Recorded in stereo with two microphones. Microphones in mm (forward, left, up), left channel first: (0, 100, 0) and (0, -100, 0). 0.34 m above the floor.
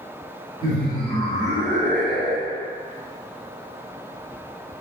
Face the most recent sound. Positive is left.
turn(degrees=0)  # may be behind; listen again after turning